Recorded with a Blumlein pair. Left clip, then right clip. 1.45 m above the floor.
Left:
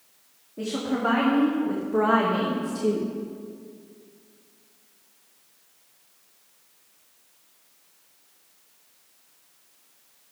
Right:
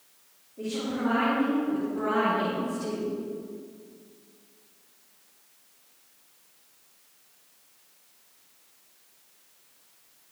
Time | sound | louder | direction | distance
0.6 | a woman speaking | left 4 dB | 60° left | 2.5 m